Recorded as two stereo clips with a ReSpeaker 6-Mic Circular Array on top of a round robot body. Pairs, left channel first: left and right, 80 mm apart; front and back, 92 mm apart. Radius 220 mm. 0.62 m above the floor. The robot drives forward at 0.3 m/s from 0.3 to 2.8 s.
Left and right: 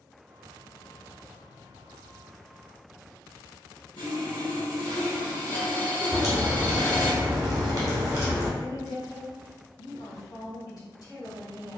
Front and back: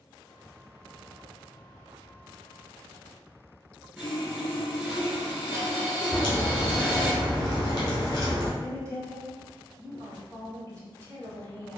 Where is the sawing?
110° left, 1.8 m.